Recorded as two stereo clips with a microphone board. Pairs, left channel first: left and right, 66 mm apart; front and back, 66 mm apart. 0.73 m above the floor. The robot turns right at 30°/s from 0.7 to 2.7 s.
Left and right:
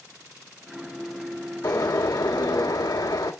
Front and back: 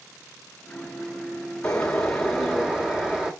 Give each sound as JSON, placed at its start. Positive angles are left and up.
{"t": 1.6, "sound": "a bird", "azimuth_deg": 70, "distance_m": 1.3}